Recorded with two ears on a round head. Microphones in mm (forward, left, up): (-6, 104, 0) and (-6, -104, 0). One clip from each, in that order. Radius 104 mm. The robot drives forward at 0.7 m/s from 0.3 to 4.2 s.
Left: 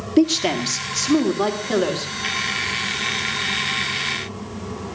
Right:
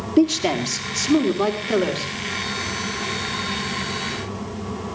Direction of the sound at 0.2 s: 10° left (ahead or behind).